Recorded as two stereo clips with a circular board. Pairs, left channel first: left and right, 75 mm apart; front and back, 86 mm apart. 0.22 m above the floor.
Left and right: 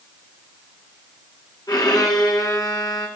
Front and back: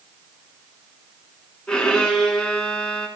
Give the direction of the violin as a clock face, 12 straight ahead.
9 o'clock.